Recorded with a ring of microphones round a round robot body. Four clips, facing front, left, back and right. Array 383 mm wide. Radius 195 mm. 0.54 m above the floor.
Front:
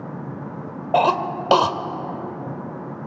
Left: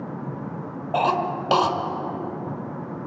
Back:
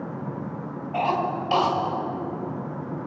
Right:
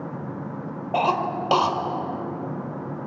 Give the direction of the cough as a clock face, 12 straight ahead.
12 o'clock.